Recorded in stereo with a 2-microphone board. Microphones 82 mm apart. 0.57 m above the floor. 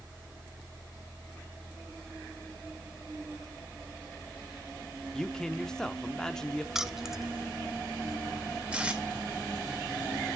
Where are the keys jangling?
5° right (ahead or behind), 0.5 m.